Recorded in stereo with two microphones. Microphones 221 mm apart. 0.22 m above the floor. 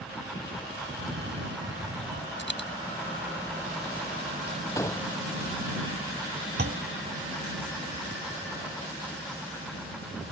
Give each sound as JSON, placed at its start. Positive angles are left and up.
{"t": 0.9, "sound": "a cough", "side_deg": -55}
{"t": 2.4, "sound": "a dropped coin", "side_deg": 55}
{"t": 4.8, "sound": "a gunshot", "side_deg": 15}
{"t": 6.6, "sound": "a clunk", "side_deg": -50}